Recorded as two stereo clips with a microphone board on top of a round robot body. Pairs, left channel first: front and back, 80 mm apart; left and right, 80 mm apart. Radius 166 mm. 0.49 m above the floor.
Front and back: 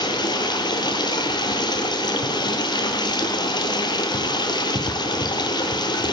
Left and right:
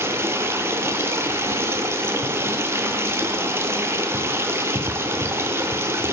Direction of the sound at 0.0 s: 30° right.